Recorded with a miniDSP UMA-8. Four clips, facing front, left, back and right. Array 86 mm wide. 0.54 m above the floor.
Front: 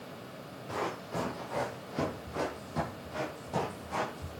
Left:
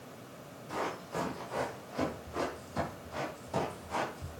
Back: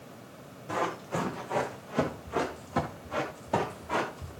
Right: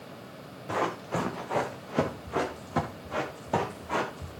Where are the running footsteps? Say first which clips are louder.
Right 7 dB, back 4 dB; 105° right, 3.5 m; by 4.3 s 130° right, 5.5 m.